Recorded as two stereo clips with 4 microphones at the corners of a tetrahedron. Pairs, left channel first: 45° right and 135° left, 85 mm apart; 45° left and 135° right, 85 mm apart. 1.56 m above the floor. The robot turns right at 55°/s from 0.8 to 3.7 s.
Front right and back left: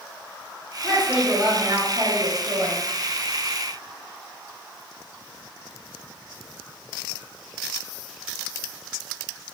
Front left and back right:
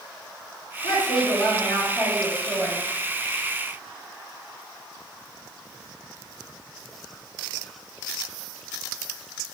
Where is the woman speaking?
40° left, 1.1 m; by 2.8 s 145° left, 1.1 m.